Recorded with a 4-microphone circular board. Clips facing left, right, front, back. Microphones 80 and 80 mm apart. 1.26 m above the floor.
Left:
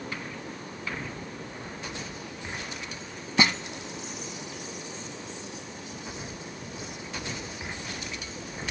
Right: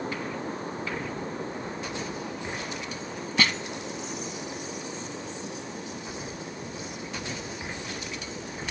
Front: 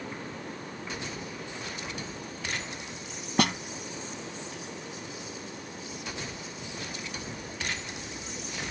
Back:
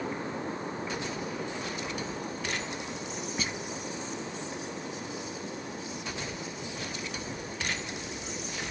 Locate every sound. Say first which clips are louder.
3.4 s a snare drum: left 2 dB, front 12 dB; 20° left